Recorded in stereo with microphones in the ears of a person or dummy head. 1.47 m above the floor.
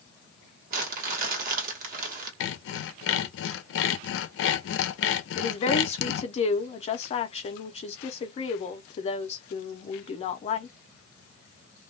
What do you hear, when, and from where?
0.7 s crumpling: 50° right (ahead or behind), 1.0 m
2.4 s sawing: 70° left (ahead or behind), 0.5 m
5.3 s a woman speaking: 35° left (ahead or behind), 0.5 m